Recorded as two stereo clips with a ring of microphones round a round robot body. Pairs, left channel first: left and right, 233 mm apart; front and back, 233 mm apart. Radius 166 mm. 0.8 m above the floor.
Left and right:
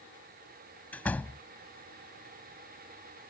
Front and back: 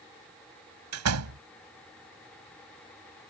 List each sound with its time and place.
0.9 s a door slam: 175° left